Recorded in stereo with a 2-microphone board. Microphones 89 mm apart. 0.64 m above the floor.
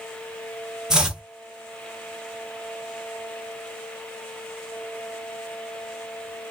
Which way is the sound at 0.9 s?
5° right (ahead or behind).